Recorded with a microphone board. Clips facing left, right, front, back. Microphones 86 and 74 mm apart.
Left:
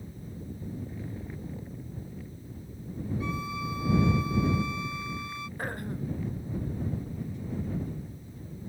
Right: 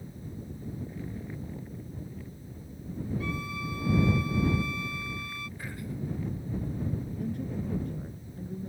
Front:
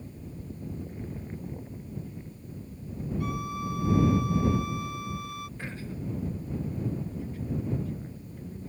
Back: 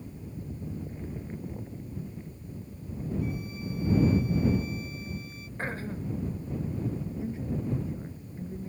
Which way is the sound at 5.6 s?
130° left.